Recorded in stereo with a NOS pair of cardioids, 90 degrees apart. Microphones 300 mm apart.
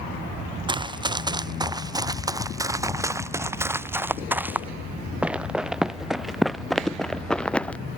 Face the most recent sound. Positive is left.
turn(degrees=5)